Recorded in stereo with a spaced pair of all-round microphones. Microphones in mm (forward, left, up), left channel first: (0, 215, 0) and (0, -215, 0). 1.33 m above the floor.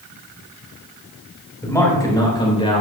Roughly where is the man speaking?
Centre.